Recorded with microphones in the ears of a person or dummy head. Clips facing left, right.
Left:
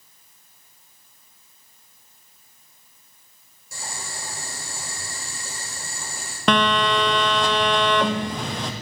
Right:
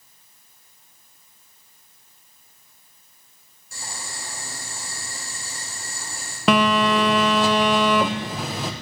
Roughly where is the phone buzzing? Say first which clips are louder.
Right 2 dB; centre.